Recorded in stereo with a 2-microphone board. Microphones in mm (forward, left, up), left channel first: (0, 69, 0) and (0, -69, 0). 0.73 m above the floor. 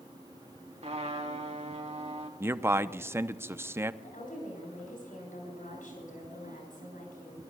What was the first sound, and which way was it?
A trumpet, 50° right (ahead or behind).